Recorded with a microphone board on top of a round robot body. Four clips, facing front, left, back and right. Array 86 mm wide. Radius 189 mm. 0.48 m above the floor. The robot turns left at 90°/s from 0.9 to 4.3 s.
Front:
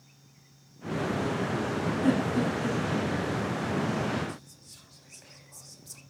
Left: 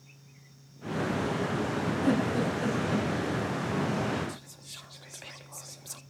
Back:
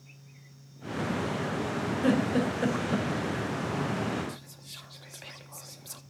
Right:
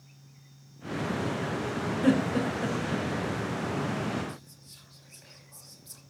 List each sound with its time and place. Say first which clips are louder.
2.0 s a giggle: right 3 dB, back 1 dB; 125° right, 4 m; by 3.1 s 145° left, 4 m
4.3 s whispering: left 1 dB, front 2 dB; 130° left, 1.8 m